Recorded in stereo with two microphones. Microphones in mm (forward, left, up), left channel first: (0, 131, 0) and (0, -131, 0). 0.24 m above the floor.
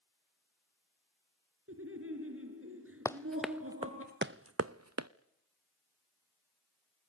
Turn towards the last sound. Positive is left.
turn(degrees=-80)